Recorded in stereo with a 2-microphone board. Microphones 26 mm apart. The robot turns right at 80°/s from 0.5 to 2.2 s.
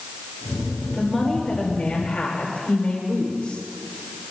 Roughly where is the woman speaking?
Ahead.